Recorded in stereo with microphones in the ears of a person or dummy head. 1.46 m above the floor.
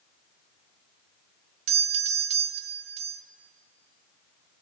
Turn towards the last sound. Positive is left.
turn(degrees=-35)  # may be behind; listen again after turning